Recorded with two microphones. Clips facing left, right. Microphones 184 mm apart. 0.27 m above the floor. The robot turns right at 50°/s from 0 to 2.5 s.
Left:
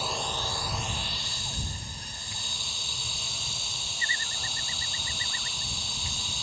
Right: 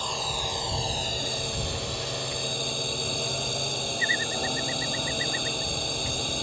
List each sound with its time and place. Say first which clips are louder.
0.0 s a drone: right 1 dB; 175° left; by 6.4 s 60° right